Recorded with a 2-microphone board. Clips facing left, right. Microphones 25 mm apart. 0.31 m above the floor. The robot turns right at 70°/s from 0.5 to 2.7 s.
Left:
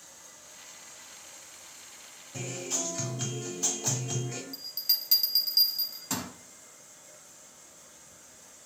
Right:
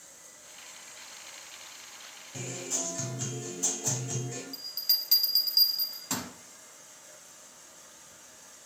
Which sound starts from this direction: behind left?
Running water, at 0.0 s.